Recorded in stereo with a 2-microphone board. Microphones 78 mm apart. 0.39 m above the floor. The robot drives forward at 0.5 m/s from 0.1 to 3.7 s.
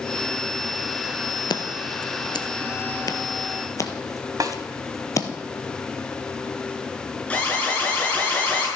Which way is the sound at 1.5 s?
75° left (ahead or behind).